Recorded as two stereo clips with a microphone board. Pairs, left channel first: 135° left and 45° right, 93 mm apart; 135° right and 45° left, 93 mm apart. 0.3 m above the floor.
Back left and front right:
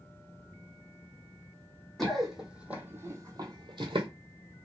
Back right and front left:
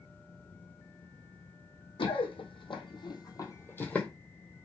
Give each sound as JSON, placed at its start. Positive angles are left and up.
{"t": 2.0, "sound": "running footsteps", "azimuth_deg": -140, "distance_m": 1.0}